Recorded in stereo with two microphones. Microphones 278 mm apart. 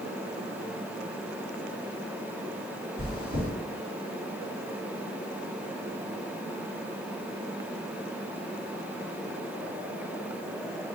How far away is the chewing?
About 2 m.